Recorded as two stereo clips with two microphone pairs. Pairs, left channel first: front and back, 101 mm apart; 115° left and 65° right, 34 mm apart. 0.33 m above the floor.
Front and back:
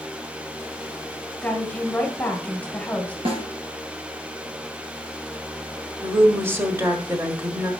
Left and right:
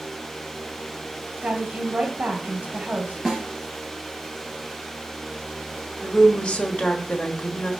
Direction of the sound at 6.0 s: 130° left.